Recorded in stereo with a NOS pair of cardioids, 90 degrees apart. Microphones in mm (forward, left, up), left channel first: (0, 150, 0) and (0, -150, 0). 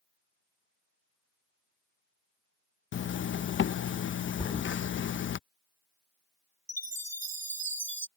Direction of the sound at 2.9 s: 40° left.